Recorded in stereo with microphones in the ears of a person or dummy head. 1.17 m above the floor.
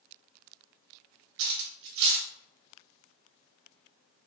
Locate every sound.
1.4 s cutlery clinking: 65° right (ahead or behind), 0.7 m